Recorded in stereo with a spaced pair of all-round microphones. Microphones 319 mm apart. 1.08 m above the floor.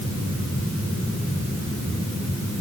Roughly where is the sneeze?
No sneeze in this recording.